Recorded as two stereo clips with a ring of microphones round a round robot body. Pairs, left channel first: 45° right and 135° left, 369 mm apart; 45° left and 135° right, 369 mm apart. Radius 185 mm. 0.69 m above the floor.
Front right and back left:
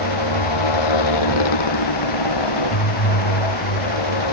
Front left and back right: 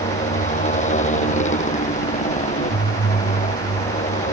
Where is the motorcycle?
25° right.